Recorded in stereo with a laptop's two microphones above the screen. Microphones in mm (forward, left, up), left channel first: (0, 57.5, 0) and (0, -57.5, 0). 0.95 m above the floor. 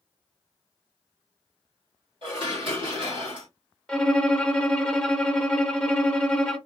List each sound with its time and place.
2.2 s dishes clattering: 50° right (ahead or behind), 1.4 m
3.9 s a violin: 5° left (ahead or behind), 0.6 m